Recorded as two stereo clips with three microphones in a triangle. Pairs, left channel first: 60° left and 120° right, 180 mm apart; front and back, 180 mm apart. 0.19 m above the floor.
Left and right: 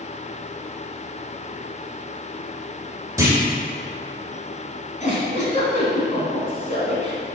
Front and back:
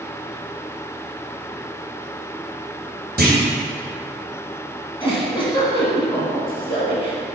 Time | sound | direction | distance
3.2 | a clunk | 170° left | 2.5 m
5.0 | a giggle | 45° left | 2.0 m